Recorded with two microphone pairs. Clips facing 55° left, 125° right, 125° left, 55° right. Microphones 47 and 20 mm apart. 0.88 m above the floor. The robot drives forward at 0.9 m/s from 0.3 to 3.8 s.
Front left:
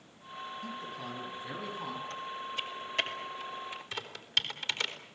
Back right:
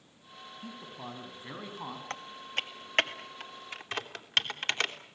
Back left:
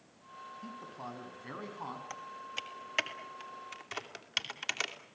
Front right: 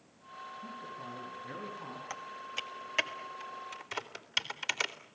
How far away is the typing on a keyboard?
About 1.5 m.